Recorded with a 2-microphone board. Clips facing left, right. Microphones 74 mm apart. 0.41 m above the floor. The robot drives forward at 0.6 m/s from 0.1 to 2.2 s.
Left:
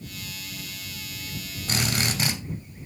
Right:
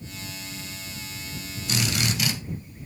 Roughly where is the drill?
Left.